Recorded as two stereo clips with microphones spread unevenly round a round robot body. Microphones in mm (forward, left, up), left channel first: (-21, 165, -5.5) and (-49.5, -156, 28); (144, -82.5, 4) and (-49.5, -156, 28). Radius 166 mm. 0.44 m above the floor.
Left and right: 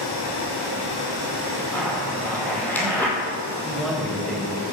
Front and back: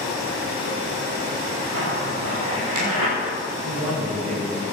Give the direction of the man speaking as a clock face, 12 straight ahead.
6 o'clock.